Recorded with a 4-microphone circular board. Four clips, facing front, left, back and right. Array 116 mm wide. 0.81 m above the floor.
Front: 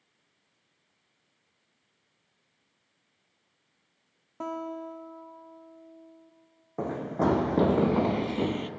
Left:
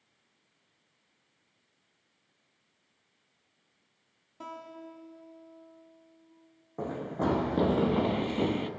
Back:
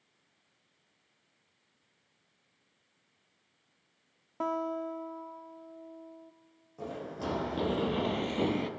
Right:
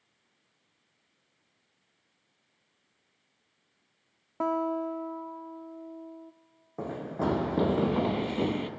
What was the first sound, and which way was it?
A guitar, 105° right.